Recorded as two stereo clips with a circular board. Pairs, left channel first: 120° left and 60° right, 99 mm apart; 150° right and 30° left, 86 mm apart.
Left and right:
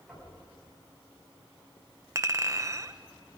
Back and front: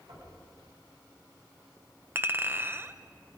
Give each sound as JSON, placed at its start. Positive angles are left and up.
{"t": 0.1, "sound": "knocking", "azimuth_deg": 30, "distance_m": 8.5}
{"t": 2.1, "sound": "a clink", "azimuth_deg": -20, "distance_m": 0.7}